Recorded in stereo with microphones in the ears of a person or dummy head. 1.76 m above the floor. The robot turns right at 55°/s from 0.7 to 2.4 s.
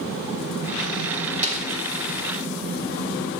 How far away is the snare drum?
About 1.9 m.